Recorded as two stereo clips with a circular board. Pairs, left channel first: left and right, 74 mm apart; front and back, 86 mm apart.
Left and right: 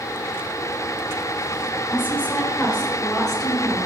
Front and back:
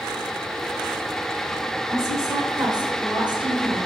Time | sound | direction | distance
1.9 | a woman speaking | 140° left | 1.8 m